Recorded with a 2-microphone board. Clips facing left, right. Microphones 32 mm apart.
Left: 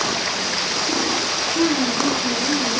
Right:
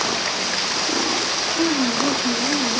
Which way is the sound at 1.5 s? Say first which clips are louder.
Left 1 dB; 60° left (ahead or behind).